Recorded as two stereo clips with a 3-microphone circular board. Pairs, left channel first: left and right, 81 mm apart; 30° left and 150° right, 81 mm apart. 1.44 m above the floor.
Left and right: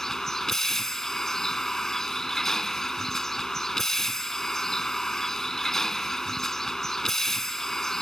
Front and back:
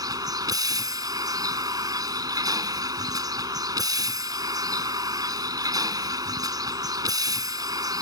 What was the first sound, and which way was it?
A vehicle, 175° left.